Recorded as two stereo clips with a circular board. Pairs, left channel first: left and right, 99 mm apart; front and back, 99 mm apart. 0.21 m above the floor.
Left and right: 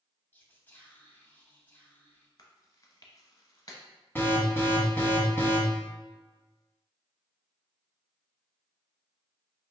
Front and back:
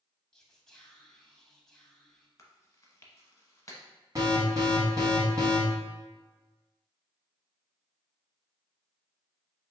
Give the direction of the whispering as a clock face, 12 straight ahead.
9 o'clock.